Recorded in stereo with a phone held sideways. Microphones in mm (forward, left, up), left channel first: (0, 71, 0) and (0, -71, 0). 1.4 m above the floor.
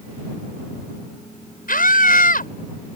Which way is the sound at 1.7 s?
80° left.